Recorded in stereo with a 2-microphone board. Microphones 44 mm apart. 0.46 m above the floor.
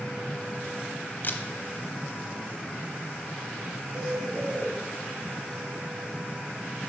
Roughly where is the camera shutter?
Left.